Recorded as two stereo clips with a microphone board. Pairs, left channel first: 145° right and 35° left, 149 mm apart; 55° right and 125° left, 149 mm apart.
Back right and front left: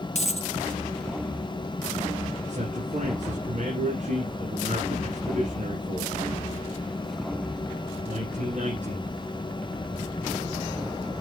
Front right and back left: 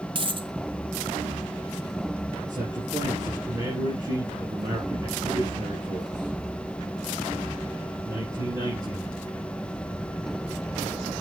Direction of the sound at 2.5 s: 60° left.